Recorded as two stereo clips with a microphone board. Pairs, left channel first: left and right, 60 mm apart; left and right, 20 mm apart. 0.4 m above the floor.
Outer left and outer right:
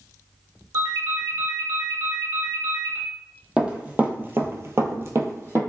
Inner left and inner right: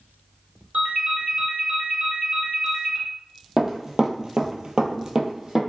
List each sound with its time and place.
0.7 s a ringtone: 60° right (ahead or behind), 1.0 m
3.6 s running footsteps: 15° right (ahead or behind), 0.7 m; by 5.6 s 40° right (ahead or behind), 0.7 m